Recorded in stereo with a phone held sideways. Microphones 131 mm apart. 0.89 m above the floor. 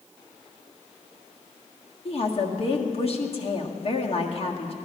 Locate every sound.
2.0 s a woman speaking: 50° left (ahead or behind), 1.6 m